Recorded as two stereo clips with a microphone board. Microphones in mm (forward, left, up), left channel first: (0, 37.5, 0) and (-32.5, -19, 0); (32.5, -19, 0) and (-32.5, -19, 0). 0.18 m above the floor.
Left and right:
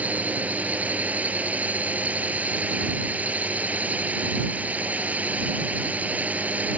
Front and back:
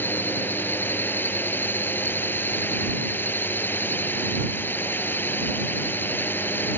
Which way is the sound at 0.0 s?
55° right.